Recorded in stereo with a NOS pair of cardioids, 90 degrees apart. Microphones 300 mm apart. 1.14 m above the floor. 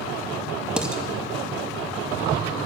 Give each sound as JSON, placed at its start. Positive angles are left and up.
{"t": 0.8, "sound": "dishes clattering", "azimuth_deg": -5, "distance_m": 0.9}